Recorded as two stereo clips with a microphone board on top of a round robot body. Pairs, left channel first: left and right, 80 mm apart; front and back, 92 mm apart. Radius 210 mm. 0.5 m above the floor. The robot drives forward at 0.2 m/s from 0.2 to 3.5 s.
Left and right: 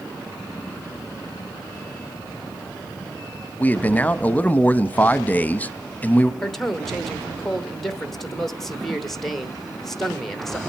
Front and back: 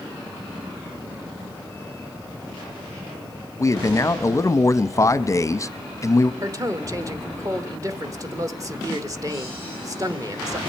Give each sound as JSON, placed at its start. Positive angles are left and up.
{"t": 3.6, "sound": "a man speaking", "azimuth_deg": 30, "distance_m": 0.7}
{"t": 6.4, "sound": "a man speaking", "azimuth_deg": 175, "distance_m": 1.2}